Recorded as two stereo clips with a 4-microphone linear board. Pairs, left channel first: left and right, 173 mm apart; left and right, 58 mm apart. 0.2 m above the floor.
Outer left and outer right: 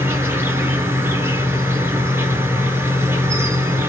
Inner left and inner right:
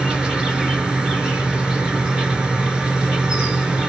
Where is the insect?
15° right (ahead or behind), 1.2 m.